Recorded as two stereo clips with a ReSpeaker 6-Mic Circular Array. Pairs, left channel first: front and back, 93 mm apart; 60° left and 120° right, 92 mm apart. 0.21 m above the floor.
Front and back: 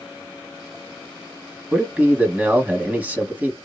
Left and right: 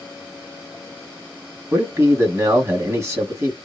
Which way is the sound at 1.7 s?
130° right.